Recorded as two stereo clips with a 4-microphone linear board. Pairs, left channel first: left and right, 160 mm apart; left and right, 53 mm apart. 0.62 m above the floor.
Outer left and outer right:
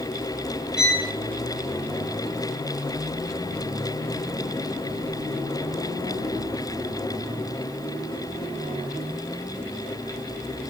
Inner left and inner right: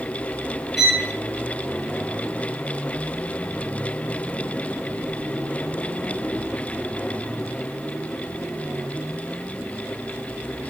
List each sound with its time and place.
0.8 s a violin: 5° right (ahead or behind), 3.5 m